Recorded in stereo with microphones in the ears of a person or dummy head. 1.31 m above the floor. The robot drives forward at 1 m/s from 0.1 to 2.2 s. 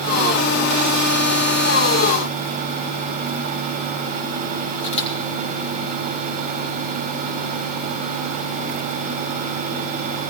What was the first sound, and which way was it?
A camera shutter, 35° left (ahead or behind).